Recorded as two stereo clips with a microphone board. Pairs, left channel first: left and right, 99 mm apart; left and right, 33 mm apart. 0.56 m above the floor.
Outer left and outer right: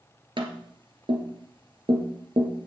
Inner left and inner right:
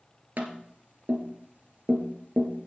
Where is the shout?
No shout in this recording.